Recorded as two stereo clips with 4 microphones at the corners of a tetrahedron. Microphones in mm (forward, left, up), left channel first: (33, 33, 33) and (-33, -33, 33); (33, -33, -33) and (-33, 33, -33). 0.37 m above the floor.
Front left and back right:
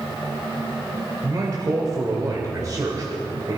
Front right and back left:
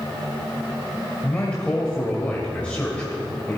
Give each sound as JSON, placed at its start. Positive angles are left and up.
{"t": 1.2, "sound": "a man speaking", "azimuth_deg": -115, "distance_m": 1.7}